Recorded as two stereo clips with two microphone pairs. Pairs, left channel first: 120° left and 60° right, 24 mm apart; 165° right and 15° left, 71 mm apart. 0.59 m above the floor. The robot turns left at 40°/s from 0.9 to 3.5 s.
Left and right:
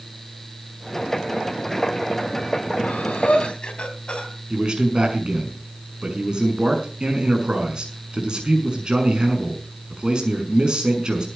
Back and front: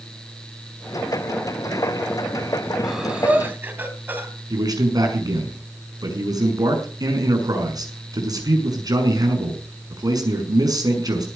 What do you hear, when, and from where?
2.8 s breathing: 100° left, 3.5 m; by 4.3 s 75° left, 3.5 m
4.5 s a man speaking: 10° right, 6 m